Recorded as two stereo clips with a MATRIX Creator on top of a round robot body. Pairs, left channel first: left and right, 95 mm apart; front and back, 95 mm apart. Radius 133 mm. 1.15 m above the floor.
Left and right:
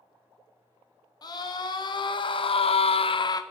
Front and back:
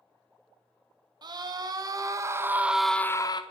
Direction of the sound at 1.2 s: 135° left.